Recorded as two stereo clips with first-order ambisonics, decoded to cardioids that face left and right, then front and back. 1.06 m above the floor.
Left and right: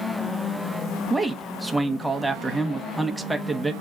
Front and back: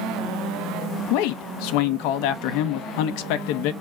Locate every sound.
1.1 s a man speaking: straight ahead, 0.8 m